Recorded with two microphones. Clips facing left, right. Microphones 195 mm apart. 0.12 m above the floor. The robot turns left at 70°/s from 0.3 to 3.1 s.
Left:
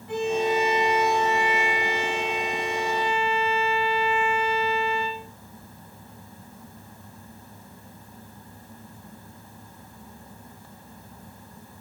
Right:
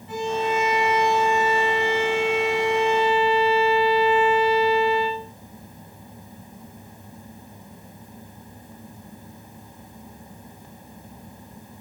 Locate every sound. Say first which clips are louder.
0.1 s a violin: left 1 dB; 55° left, 4 m; by 5.2 s 140° right, 4 m